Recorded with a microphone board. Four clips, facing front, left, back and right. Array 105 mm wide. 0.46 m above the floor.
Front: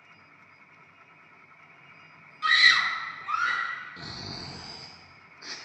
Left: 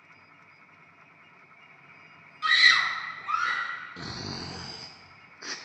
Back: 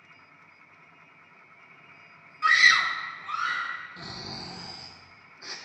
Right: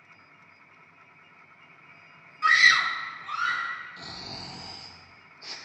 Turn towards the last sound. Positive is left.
turn(degrees=90)